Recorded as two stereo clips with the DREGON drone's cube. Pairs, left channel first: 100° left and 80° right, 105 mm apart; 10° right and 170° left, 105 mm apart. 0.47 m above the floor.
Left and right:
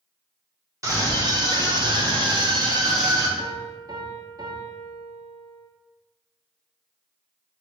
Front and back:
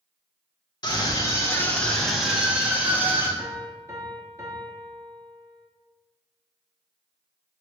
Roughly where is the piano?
Behind right.